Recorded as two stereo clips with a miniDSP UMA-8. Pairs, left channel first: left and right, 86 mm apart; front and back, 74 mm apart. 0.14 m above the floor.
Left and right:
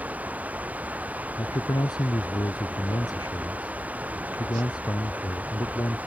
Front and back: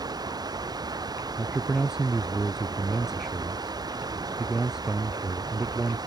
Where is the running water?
160° right.